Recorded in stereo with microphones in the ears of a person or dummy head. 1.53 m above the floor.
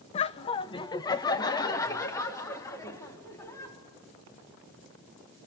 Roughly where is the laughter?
Left.